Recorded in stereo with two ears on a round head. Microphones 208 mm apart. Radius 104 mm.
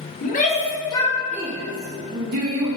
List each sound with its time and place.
0.2 s a shout: 35° left (ahead or behind), 1.2 m; by 2.8 s 75° right (ahead or behind), 1.1 m